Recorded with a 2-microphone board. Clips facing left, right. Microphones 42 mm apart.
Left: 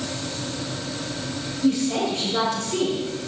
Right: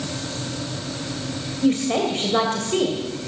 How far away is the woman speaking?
About 2.5 m.